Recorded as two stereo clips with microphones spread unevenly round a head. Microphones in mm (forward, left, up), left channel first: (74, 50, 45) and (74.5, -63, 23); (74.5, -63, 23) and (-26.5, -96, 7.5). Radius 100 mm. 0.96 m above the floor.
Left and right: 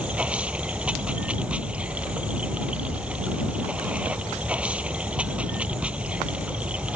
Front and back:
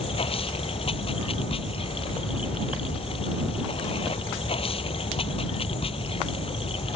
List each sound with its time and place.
0.0 s running water: 10° right